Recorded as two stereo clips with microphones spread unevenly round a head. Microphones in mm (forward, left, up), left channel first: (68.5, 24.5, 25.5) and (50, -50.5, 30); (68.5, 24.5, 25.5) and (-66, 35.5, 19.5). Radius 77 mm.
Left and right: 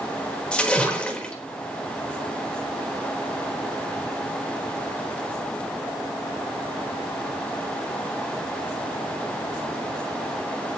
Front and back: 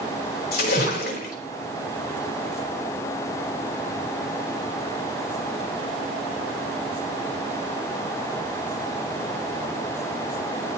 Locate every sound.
0.5 s a splash: straight ahead, 3.5 m